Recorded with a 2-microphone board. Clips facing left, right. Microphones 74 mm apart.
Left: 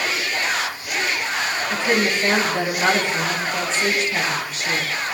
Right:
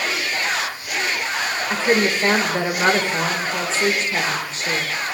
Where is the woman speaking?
30° right (ahead or behind), 1.5 m.